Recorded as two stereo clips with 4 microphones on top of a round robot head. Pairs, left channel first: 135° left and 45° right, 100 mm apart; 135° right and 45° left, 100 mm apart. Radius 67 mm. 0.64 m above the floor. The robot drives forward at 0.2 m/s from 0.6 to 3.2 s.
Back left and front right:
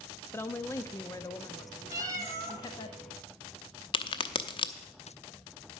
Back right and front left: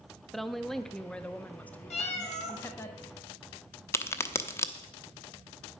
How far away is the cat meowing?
About 1.4 m.